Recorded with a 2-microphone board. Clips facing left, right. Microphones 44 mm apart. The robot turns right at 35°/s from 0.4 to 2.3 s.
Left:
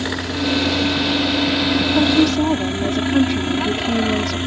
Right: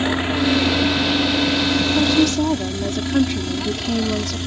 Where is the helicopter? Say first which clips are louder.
Right 3 dB; 30° right; by 4.5 s 35° left.